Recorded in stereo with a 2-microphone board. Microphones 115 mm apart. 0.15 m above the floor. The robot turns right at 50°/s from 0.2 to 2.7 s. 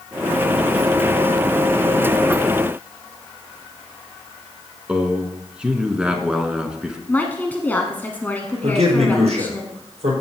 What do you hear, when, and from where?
4.9 s a man speaking: 10° right (ahead or behind), 1.4 m
7.1 s a woman speaking: 15° left (ahead or behind), 1.1 m
8.6 s a man speaking: 70° right (ahead or behind), 5 m